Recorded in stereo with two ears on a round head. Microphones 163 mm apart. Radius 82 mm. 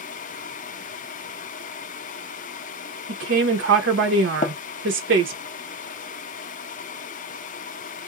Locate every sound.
3.1 s a woman speaking: 75° right (ahead or behind), 1.0 m
4.4 s tapping: 40° left (ahead or behind), 0.7 m